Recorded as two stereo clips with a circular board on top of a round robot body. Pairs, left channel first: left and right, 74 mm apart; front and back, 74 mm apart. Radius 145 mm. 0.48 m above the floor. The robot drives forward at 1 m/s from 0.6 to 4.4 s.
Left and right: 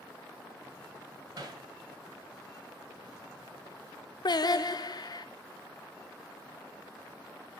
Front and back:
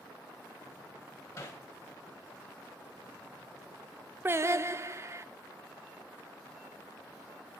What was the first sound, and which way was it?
Hammering, 50° right.